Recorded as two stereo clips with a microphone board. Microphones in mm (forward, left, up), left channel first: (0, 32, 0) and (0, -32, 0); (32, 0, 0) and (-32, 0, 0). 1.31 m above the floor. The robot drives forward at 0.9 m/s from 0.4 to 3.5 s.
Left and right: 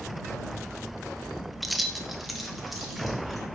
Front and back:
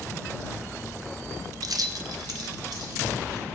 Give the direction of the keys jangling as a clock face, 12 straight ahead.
6 o'clock.